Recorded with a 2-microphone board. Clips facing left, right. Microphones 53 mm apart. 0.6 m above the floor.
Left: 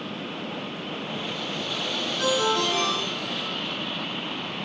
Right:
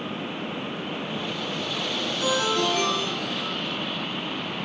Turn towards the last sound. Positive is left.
turn(degrees=60)  # may be behind; listen again after turning